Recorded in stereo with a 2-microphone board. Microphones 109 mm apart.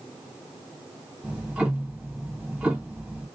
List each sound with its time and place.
1.2 s ticking: 10° right (ahead or behind), 1.6 m